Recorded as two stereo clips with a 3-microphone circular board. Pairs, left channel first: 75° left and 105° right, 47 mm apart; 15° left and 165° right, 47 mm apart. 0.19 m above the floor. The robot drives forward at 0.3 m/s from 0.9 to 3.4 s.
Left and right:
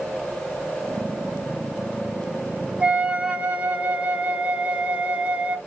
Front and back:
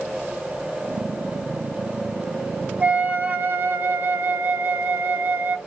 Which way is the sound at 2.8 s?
145° right.